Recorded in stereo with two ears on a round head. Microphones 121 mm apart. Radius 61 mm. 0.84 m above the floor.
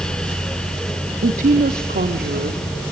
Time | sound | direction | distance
1.2 | a woman speaking | 60° right (ahead or behind) | 1.3 m